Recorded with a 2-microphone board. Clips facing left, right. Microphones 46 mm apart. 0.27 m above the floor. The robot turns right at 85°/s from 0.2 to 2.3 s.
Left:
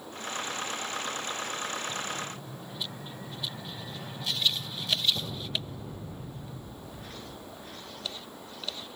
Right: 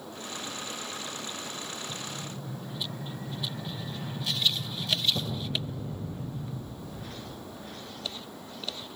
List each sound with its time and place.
1.9 s an explosion: 150° left, 6.5 m; by 7.4 s 175° right, 6.5 m